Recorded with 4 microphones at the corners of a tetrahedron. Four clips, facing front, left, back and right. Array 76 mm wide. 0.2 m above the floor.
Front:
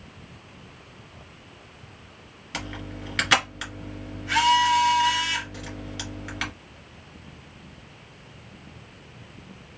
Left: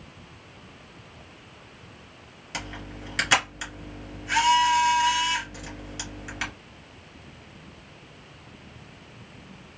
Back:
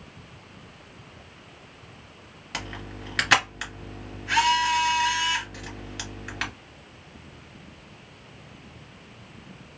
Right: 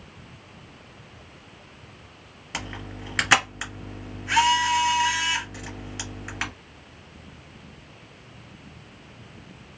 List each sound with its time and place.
2.5 s a camera shutter: 110° right, 1.7 m